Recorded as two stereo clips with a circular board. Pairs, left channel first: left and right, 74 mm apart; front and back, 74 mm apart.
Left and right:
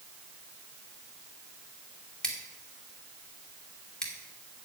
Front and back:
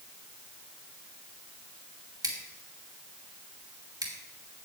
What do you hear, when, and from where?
2.2 s scissors: 170° left, 2.5 m